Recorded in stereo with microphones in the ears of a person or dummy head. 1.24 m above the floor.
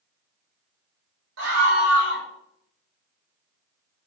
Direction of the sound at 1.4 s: 80° right.